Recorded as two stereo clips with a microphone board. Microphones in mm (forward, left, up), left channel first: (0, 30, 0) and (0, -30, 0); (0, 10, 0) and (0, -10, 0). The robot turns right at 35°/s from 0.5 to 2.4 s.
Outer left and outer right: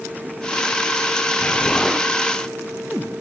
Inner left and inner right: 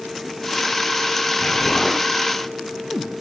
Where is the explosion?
165° left, 0.7 m; by 3.2 s 165° right, 0.7 m.